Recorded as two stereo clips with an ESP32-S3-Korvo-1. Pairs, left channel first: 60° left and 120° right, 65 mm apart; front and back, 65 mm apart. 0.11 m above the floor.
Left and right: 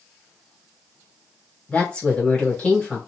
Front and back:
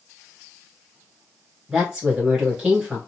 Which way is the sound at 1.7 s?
105° left.